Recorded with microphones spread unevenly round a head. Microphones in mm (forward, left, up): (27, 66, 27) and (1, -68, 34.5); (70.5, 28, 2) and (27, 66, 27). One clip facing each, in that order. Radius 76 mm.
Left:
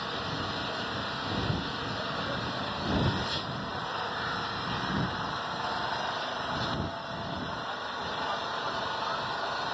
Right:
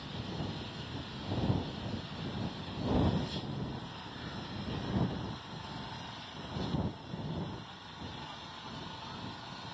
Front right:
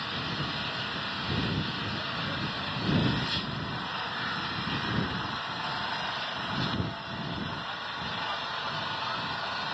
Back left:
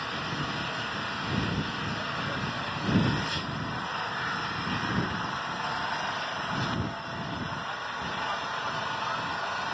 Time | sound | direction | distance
0.0 | an engine running | 60° left | ?